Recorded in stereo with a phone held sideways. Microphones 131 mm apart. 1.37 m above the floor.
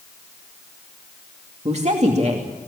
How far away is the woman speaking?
About 2.5 m.